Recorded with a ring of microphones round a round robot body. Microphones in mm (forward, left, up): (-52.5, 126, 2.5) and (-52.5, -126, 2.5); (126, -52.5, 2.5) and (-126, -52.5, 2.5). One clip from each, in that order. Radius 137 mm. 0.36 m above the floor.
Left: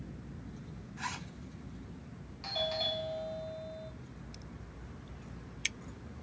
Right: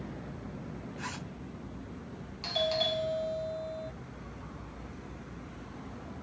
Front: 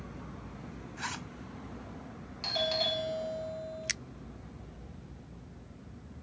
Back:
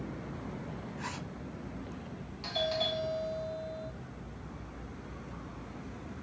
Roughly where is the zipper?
Ahead.